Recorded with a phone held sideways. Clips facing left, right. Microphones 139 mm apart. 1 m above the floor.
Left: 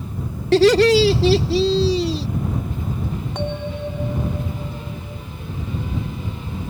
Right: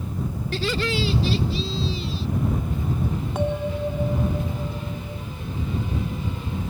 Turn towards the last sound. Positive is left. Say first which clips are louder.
# right 3 dB
turn(degrees=-5)  # may be behind; listen again after turning